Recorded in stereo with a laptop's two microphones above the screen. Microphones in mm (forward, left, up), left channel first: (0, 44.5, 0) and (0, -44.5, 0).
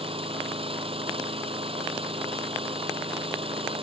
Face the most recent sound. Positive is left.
turn(degrees=-85)